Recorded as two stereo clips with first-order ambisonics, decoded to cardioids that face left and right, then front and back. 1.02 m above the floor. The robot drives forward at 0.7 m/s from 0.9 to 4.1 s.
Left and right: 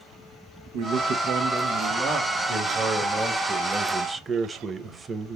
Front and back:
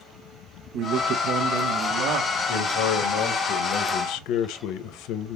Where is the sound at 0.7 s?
125° right, 0.7 m; by 2.4 s 160° right, 1.6 m.